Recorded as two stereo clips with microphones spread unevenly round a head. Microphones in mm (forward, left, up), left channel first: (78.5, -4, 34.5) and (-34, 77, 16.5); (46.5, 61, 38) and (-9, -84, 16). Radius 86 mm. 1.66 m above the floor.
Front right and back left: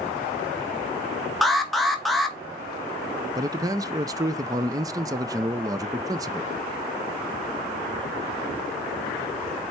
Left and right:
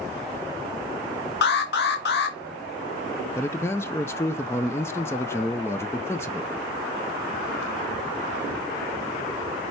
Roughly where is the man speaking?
Left.